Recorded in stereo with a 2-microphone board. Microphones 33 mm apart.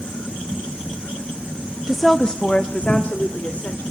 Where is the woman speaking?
15° right (ahead or behind), 0.6 m; by 3.8 s 50° left (ahead or behind), 2.5 m.